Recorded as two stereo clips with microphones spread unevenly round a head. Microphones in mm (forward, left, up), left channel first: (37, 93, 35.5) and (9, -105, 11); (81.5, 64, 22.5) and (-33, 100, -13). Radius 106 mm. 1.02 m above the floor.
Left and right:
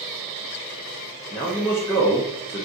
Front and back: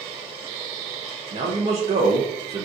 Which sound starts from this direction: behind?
A man speaking, at 1.3 s.